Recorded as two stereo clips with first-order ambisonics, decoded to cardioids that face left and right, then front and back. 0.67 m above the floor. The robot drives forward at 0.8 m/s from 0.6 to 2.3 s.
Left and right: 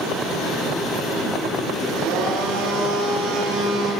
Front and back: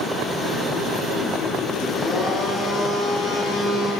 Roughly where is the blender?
Ahead right.